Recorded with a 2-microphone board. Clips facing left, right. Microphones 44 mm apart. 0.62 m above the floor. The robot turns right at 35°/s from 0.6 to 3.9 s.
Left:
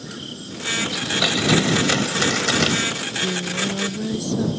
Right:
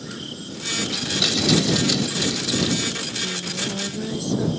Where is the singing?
145° left; by 4.5 s straight behind.